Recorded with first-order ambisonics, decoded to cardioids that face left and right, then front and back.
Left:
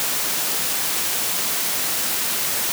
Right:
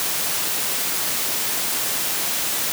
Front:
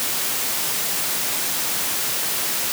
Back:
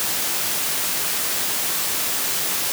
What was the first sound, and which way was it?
Only background noise.